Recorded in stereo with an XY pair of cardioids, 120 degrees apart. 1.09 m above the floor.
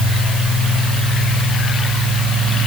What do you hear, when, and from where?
Only background noise.